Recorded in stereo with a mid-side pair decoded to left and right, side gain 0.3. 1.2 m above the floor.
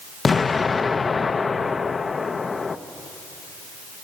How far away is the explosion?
About 0.7 m.